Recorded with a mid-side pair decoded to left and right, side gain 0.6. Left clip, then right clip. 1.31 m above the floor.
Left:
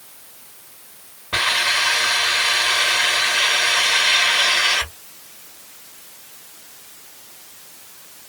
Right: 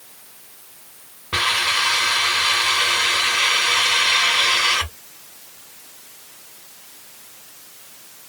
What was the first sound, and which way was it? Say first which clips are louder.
A hiss: left 1 dB; 5° right.